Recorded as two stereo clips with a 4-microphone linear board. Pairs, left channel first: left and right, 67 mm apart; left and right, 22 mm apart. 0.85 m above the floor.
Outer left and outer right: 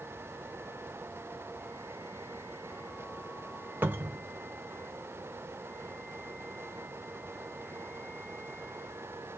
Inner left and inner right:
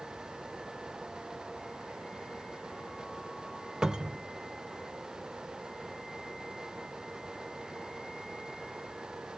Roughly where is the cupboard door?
Right.